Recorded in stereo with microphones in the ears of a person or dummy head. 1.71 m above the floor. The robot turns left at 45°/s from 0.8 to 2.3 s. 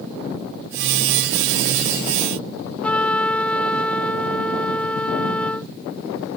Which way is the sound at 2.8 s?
5° left (ahead or behind).